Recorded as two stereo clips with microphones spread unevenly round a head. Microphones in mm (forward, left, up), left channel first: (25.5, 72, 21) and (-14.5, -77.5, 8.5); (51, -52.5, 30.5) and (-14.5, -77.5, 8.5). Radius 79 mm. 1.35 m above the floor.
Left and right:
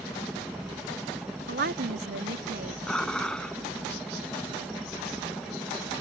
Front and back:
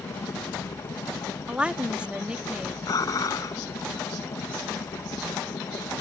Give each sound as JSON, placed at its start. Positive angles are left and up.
{"t": 0.0, "sound": "a helicopter", "azimuth_deg": -15}
{"t": 1.5, "sound": "a woman speaking", "azimuth_deg": -85}
{"t": 2.9, "sound": "dishes clattering", "azimuth_deg": -10}